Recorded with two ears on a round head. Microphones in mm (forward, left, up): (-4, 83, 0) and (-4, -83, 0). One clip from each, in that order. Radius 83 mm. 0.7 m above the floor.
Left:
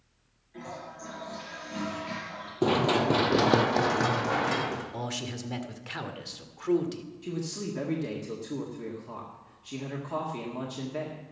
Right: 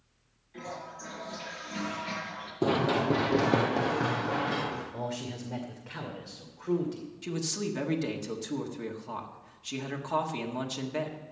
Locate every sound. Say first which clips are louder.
0.5 s a toilet flushing: even; 20° right (ahead or behind), 4.5 m
2.6 s running footsteps: left 2 dB; 10° left (ahead or behind), 0.9 m; by 4.8 s 70° left (ahead or behind), 2.5 m
4.9 s a man speaking: left 1 dB; 70° left (ahead or behind), 1.9 m
7.2 s a man speaking: right 3 dB; 40° right (ahead or behind), 1.6 m